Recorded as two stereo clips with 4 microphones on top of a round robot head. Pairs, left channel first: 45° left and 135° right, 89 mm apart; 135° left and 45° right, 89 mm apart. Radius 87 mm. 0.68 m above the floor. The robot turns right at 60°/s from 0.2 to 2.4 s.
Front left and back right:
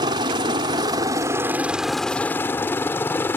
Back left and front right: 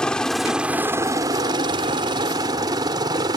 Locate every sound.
0.0 s a helicopter: 145° right; by 3.4 s 15° right